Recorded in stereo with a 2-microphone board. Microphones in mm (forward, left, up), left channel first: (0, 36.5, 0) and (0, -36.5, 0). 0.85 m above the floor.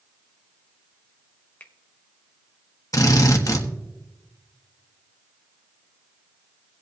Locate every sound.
1.6 s a finger snap: 20° left (ahead or behind), 0.9 m
2.9 s a drill: 50° left (ahead or behind), 1.3 m